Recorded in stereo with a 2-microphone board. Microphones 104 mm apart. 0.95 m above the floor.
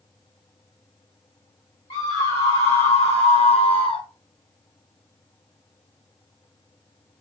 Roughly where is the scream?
Left.